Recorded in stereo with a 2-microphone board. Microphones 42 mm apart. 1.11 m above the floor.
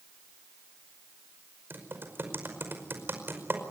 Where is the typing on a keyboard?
55° right (ahead or behind), 5 m.